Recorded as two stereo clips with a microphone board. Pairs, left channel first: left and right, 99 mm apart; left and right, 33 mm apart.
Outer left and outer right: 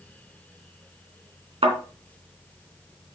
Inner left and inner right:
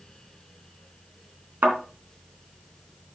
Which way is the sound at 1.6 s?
75° right (ahead or behind).